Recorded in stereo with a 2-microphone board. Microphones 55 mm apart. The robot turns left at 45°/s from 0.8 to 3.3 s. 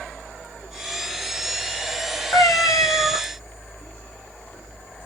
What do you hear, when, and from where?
2.3 s a cat meowing: 125° left, 0.7 m; by 3.2 s 85° left, 0.7 m